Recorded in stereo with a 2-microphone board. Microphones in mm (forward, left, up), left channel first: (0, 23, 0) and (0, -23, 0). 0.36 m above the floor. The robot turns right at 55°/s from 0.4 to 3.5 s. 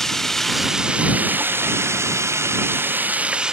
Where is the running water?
175° left; by 3.5 s 15° right.